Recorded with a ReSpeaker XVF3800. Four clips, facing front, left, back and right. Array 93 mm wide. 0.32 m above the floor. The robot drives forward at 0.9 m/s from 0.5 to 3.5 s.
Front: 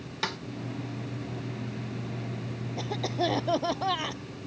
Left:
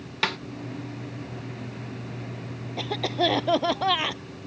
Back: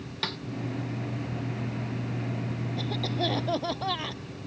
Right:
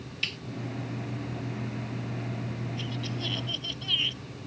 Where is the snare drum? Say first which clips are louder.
Left 10 dB, front 2 dB; 80° left.